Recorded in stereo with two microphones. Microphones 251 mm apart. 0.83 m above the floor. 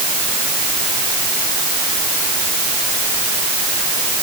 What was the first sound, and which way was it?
Only background noise.